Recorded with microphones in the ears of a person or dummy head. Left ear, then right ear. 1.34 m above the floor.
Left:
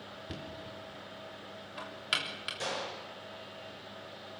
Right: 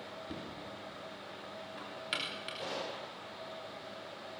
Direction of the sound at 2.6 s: 60° left (ahead or behind).